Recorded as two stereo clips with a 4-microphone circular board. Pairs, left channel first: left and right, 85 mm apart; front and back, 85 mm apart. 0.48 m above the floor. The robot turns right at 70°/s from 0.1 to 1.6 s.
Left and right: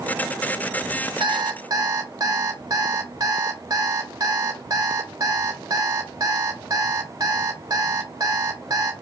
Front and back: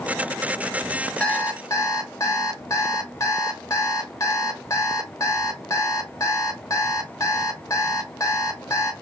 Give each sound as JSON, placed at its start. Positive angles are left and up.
{"t": 1.2, "sound": "an alarm clock", "azimuth_deg": -80, "distance_m": 0.9}